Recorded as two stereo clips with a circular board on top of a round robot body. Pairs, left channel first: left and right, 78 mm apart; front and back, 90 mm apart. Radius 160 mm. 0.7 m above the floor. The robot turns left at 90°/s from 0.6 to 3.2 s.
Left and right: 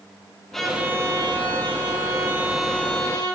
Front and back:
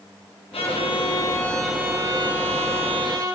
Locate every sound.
0.5 s a violin: 5° left, 5.5 m; by 3.4 s 130° left, 5.5 m